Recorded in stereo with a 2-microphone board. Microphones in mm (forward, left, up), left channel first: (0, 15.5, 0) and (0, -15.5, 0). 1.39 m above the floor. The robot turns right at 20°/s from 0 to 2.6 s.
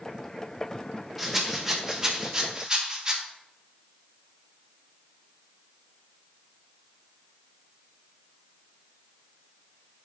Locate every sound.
1.2 s a rattle: 5° right (ahead or behind), 0.7 m; by 3.2 s 25° right (ahead or behind), 0.7 m